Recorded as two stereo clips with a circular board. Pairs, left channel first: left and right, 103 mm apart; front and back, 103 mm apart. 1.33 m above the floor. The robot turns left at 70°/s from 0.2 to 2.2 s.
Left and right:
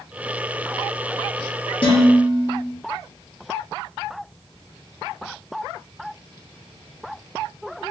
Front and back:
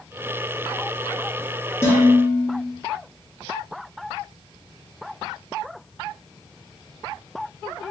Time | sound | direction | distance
1.8 | dishes clattering | 60° left | 1.4 m